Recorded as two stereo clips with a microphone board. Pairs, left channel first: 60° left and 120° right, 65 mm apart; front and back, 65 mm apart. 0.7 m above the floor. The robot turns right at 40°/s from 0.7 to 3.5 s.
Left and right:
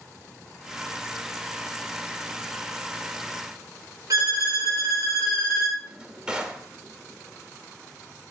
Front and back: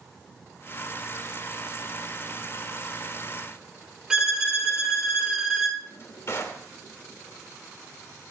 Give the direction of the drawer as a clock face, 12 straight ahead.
1 o'clock.